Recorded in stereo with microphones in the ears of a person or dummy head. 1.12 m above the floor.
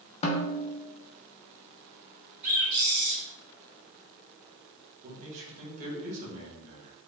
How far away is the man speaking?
About 1.2 m.